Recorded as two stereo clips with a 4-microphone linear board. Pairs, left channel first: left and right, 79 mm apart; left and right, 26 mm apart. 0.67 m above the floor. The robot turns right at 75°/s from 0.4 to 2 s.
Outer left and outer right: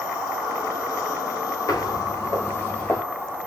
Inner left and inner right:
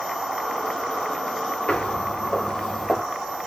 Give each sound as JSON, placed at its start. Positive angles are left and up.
{"t": 1.7, "sound": "footsteps", "side_deg": 50, "distance_m": 0.9}